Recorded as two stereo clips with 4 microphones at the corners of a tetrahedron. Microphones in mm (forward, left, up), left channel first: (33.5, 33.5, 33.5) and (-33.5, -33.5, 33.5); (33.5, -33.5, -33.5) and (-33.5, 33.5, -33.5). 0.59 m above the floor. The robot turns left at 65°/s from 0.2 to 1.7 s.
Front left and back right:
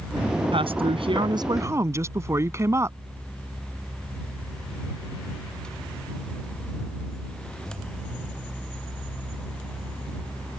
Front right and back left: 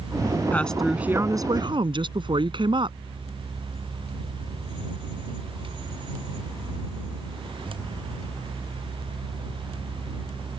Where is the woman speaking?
115° right; by 3.0 s 165° left.